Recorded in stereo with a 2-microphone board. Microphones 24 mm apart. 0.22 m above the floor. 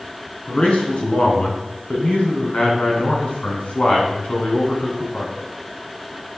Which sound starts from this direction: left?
A man speaking, at 0.5 s.